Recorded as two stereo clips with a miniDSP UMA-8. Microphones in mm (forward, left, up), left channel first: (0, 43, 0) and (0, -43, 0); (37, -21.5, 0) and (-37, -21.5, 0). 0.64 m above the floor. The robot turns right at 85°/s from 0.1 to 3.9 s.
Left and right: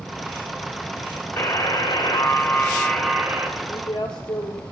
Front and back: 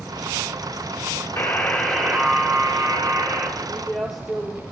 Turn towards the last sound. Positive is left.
turn(degrees=75)